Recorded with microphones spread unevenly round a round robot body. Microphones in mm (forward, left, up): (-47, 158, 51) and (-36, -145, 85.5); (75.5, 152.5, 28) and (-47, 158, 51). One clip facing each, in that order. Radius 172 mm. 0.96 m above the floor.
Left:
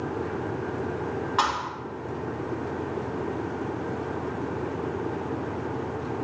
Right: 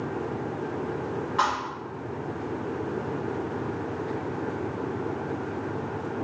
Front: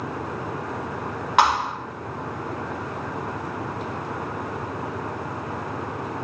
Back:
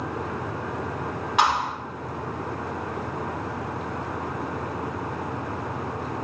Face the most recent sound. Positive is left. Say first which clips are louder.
# even, front 3 dB
turn(degrees=15)